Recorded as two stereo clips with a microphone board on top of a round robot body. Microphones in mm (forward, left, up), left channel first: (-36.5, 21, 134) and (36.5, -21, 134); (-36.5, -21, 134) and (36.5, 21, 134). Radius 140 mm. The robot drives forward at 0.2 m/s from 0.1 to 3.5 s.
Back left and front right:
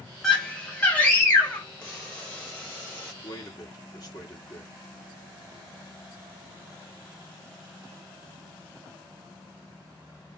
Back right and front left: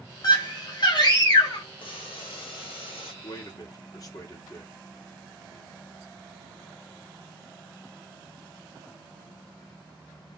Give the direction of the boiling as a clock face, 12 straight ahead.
4 o'clock.